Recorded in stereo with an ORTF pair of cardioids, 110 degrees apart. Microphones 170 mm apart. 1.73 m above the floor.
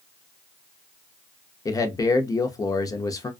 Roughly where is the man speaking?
Ahead.